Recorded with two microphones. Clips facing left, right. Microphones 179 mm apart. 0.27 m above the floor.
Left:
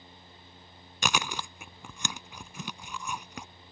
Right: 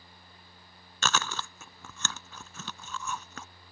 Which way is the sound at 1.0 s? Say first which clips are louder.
Even; 15° left (ahead or behind).